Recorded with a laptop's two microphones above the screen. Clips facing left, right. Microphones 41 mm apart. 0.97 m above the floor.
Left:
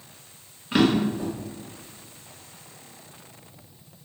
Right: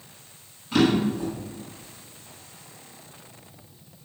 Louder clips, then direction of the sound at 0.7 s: Even; 30° left (ahead or behind).